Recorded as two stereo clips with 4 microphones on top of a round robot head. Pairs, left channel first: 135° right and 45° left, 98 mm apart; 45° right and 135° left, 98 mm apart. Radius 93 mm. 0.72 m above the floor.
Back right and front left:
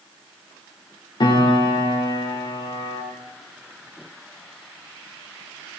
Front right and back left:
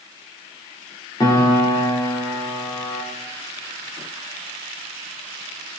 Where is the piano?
95° right, 3.5 m.